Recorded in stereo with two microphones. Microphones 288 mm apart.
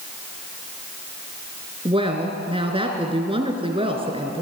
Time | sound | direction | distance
1.9 | a woman speaking | 20° right (ahead or behind) | 3 m